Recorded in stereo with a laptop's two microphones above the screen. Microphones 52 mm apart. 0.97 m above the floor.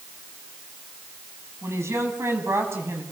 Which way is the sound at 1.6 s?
60° right (ahead or behind).